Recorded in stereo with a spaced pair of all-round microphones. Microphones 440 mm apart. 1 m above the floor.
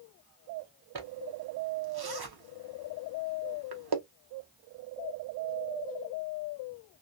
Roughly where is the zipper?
Right.